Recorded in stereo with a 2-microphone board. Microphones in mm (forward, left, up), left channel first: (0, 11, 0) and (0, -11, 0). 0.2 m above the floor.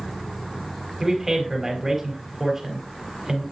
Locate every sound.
1.0 s a man speaking: 15° right (ahead or behind), 5 m